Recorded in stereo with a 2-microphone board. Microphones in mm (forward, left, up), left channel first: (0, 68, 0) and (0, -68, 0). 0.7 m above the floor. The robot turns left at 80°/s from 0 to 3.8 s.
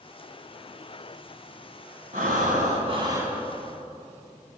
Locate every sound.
2.1 s breathing: 75° right, 2.0 m; by 3.4 s 175° right, 2.0 m